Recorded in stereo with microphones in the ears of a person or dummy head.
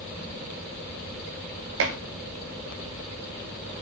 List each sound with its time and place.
1.8 s dishes clattering: 70° right (ahead or behind), 2.5 m